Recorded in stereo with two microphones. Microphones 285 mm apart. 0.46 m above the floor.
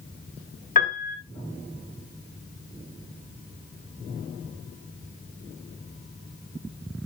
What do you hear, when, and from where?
0.8 s a piano: 30° left (ahead or behind), 0.8 m